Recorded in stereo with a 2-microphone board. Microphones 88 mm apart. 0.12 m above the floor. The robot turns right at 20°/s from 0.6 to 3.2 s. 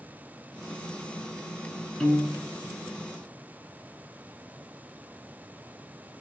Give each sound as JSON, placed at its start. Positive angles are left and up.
{"t": 2.0, "sound": "a piano", "side_deg": 5, "distance_m": 0.9}